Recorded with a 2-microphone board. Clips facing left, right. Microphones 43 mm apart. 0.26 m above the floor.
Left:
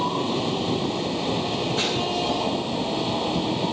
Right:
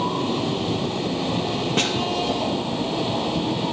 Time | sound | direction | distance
1.8 | a snare drum | 60° right (ahead or behind) | 1.9 m